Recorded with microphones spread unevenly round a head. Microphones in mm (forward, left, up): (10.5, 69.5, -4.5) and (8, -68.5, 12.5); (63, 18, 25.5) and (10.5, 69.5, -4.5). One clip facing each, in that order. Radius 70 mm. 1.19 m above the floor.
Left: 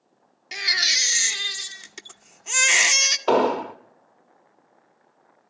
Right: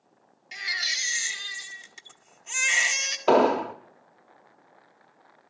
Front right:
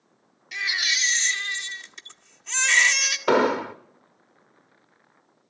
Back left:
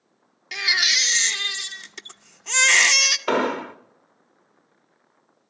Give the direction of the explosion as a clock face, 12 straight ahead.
1 o'clock.